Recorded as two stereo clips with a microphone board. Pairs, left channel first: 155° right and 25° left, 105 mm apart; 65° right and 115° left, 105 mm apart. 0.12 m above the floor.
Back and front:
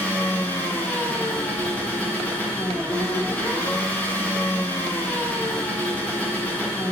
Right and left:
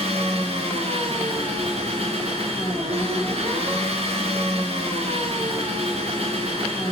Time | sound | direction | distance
0.0 | an engine running | 125° left | 5 m